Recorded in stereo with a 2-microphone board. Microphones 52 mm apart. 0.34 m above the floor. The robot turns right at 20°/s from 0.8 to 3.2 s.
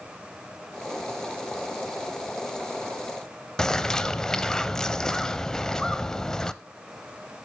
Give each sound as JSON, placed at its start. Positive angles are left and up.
{"t": 3.6, "sound": "a bird", "side_deg": 10, "distance_m": 0.8}